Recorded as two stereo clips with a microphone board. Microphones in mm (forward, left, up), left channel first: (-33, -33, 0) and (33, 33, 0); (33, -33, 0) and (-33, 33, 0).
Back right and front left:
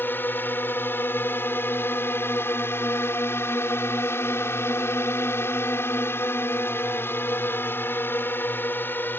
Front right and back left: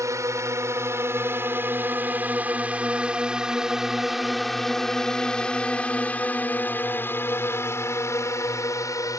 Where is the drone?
170° left; by 9.2 s 75° right.